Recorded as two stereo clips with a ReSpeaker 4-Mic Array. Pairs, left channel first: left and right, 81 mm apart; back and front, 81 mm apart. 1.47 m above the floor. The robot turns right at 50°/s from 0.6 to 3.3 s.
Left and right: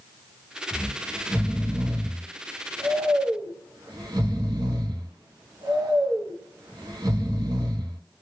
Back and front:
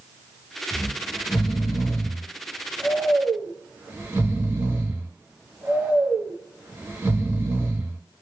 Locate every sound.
0.7 s snoring: 165° left, 0.8 m; by 8.0 s 65° right, 0.8 m